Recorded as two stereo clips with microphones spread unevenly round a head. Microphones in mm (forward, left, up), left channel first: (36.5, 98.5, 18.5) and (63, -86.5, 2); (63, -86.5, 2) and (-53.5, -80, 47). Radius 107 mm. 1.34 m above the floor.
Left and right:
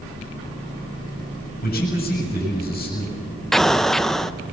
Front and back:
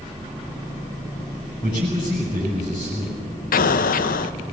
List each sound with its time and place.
1.6 s a man speaking: 60° left, 7 m
3.5 s an explosion: 15° left, 0.6 m